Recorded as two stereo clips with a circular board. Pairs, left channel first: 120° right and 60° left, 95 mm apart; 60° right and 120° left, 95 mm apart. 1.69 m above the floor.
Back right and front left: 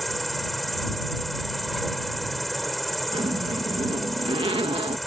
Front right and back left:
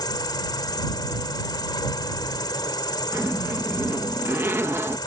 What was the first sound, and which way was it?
An insect, 30° right.